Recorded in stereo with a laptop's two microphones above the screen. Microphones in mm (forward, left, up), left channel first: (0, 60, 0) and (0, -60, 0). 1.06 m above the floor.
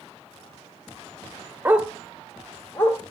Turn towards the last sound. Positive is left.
turn(degrees=20)  # may be behind; listen again after turning